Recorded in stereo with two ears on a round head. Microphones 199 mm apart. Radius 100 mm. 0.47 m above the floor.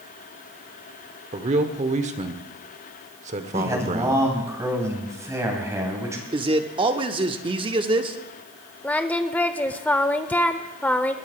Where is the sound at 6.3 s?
20° right (ahead or behind), 0.8 m.